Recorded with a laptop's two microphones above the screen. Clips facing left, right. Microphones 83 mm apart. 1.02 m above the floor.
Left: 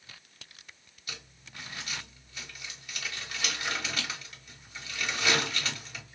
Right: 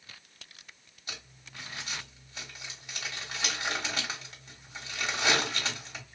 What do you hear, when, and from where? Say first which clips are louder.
1.1 s crumpling: even; 25° right (ahead or behind), 1.1 m